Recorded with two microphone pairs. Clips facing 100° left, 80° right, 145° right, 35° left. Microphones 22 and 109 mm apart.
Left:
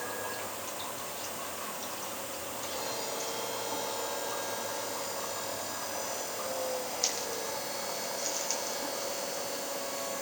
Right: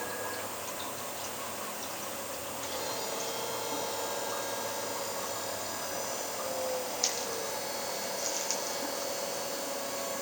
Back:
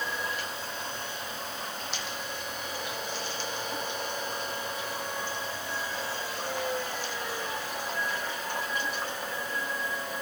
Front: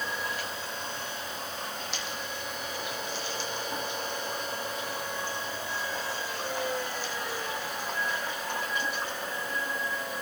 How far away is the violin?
I don't hear a violin.